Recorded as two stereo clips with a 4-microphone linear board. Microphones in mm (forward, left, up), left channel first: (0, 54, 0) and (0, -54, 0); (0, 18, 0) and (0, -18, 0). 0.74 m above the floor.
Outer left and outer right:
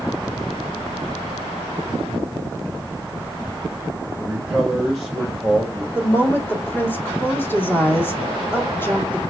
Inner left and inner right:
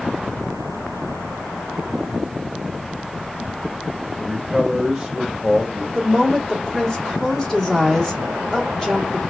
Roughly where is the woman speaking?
Centre.